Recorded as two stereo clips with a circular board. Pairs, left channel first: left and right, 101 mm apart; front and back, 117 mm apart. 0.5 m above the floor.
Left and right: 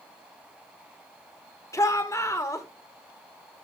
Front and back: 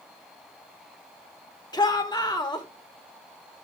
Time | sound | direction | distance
1.7 | a shout | 40° left | 1.5 m